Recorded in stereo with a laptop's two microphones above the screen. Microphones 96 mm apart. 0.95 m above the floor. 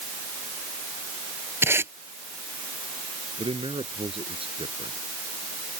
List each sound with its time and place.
1.6 s tape being pulled: 25° right (ahead or behind)
3.4 s a man speaking: 75° right (ahead or behind)